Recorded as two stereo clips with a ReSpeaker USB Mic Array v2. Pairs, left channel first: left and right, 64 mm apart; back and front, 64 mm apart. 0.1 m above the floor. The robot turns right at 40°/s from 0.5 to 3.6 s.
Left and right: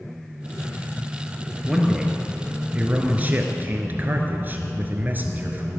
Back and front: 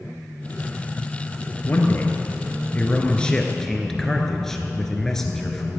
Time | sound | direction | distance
1.6 | a man speaking | straight behind | 1.4 m